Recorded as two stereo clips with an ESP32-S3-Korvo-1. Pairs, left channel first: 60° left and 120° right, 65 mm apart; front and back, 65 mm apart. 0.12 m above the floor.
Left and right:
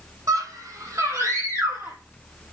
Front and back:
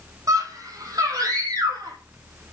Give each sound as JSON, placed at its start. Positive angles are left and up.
{"t": 0.3, "sound": "a scream", "azimuth_deg": -155, "distance_m": 6.0}